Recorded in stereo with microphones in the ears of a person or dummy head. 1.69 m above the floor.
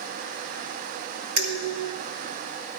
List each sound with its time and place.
1.4 s dishes clattering: 70° right (ahead or behind), 4.5 m